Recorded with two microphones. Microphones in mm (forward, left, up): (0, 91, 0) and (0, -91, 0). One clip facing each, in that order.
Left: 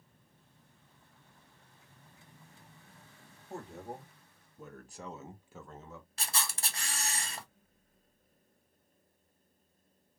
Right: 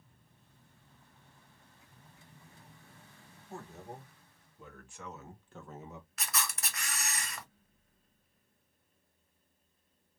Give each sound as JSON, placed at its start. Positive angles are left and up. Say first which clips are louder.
{"t": 3.5, "sound": "a man speaking", "louder": "left 3 dB", "side_deg": 65, "distance_m": 1.8}
{"t": 6.2, "sound": "a camera shutter", "louder": "even", "side_deg": 30, "distance_m": 0.7}